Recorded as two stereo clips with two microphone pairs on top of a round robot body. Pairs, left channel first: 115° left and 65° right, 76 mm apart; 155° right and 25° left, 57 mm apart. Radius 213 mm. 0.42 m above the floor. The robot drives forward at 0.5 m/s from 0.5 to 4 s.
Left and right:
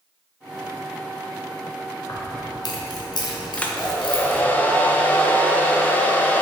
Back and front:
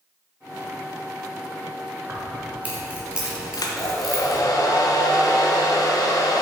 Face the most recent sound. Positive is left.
turn(degrees=-175)